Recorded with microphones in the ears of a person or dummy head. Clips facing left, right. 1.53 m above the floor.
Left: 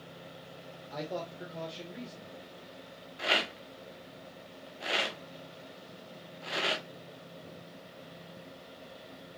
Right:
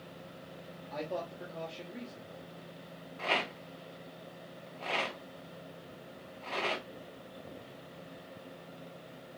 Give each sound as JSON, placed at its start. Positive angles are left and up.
{"t": 0.9, "sound": "a man speaking", "side_deg": 0, "distance_m": 1.4}
{"t": 3.2, "sound": "a rattle", "side_deg": 10, "distance_m": 0.7}